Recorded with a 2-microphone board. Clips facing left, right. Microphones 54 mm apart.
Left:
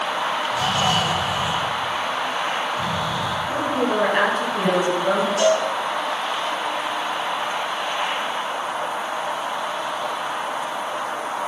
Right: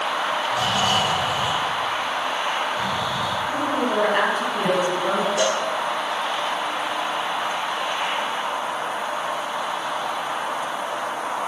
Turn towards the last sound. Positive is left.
turn(degrees=-80)